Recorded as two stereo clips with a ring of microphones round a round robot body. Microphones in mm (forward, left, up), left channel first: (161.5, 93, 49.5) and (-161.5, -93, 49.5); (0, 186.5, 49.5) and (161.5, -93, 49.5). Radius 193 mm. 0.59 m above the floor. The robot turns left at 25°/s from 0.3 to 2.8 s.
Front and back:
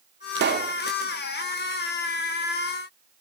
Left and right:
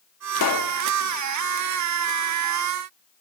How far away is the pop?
About 1.7 m.